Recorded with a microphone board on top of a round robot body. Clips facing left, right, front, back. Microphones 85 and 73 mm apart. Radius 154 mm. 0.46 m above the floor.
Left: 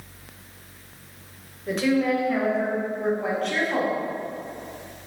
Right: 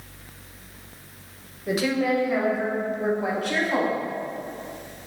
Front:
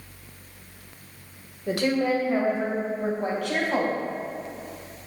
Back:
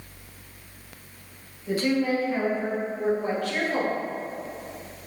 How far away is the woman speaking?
About 2.5 m.